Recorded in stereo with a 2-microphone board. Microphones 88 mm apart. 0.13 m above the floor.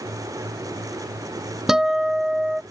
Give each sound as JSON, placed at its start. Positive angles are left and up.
{"t": 1.7, "sound": "a guitar", "side_deg": -5}